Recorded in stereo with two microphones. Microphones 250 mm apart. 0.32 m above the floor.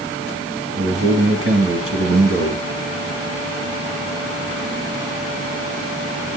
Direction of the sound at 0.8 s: 65° right (ahead or behind).